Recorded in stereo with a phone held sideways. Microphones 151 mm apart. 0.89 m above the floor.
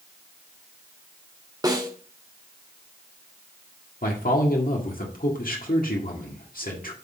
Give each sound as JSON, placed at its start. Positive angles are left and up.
{"t": 1.6, "sound": "a snare drum", "side_deg": -25, "distance_m": 1.4}
{"t": 4.0, "sound": "a man speaking", "side_deg": 70, "distance_m": 1.7}